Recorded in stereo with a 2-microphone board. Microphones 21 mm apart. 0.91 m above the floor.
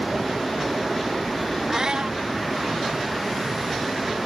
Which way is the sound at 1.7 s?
40° right (ahead or behind).